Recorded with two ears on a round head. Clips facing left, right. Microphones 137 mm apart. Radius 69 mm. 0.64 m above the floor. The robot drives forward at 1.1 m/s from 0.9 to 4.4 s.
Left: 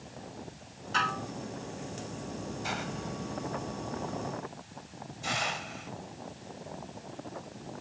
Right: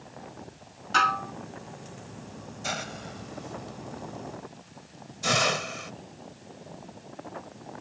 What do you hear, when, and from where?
0.9 s dishes clattering: 65° right (ahead or behind); by 1.3 s 70° right (ahead or behind)
2.6 s a hiss: 55° right (ahead or behind); by 5.9 s 75° right (ahead or behind)